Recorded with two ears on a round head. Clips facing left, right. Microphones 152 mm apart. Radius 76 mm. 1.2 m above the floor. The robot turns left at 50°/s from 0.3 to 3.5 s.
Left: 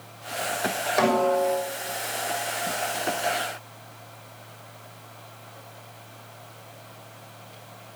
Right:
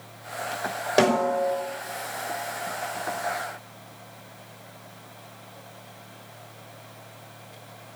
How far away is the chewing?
I don't hear chewing.